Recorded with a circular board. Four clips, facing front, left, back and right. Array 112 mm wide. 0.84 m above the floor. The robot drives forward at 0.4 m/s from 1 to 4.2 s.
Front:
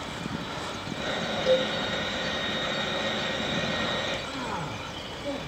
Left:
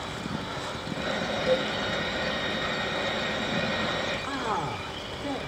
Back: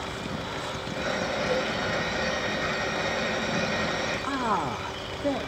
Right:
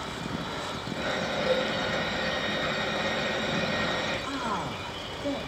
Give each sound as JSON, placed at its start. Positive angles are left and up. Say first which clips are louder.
{"t": 1.5, "sound": "a cowbell", "louder": "left 2 dB, front 7 dB", "azimuth_deg": -20, "distance_m": 1.6}
{"t": 4.2, "sound": "a man speaking", "louder": "left 2 dB, back 6 dB", "azimuth_deg": 170, "distance_m": 1.6}